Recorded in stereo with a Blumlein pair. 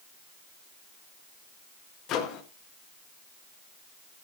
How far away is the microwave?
About 1.7 m.